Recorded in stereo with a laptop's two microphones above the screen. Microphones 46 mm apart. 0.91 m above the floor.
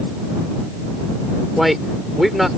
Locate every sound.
1.6 s a man speaking: 5° right (ahead or behind)